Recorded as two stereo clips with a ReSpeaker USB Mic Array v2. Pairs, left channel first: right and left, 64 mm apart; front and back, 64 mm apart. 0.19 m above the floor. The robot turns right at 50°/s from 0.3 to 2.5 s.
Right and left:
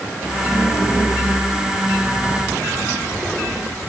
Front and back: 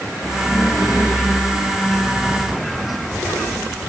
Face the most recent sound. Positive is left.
No sound to turn to.